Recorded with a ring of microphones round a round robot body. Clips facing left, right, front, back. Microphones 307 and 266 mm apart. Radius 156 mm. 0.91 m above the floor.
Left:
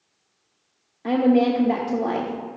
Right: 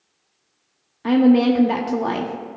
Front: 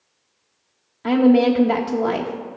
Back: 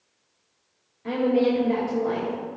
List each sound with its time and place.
1.0 s a woman speaking: 25° right, 0.7 m